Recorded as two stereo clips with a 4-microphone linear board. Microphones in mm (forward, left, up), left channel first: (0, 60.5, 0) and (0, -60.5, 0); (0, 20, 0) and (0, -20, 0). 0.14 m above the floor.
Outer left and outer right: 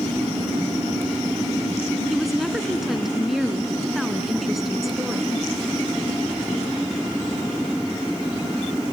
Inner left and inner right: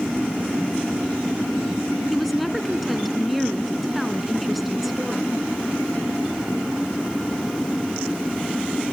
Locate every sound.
2.1 s a woman speaking: centre (ahead or behind), 1.1 m